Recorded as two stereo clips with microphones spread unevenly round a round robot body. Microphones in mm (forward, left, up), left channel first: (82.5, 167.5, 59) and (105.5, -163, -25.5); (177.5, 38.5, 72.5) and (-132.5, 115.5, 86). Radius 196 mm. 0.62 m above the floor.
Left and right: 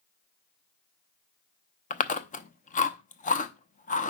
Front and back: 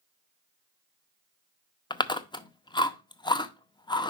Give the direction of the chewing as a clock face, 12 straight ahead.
11 o'clock.